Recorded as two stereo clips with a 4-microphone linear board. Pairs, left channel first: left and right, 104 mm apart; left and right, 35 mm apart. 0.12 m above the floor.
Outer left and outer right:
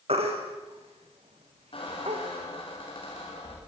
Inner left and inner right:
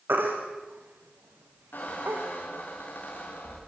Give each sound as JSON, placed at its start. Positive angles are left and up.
{"t": 0.1, "sound": "a baby crying", "side_deg": -75, "distance_m": 4.0}
{"t": 1.7, "sound": "a squeak", "side_deg": 60, "distance_m": 6.5}